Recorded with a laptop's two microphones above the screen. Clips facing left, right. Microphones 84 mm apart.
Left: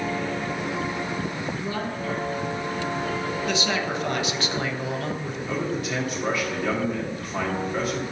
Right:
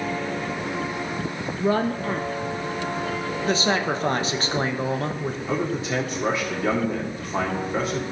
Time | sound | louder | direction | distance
1.6 | a woman speaking | right 7 dB | 50° right (ahead or behind) | 0.5 m
3.4 | a man speaking | right 6 dB | 35° right (ahead or behind) | 0.8 m
5.5 | a man speaking | right 2 dB | 25° right (ahead or behind) | 1.9 m